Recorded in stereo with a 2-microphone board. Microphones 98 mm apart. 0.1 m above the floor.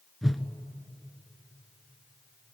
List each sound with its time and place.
0.2 s a whoosh: centre (ahead or behind), 1.1 m